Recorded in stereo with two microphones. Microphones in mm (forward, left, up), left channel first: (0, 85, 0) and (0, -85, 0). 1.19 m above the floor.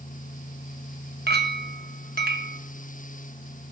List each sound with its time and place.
1.3 s a clink: 75° right (ahead or behind), 0.8 m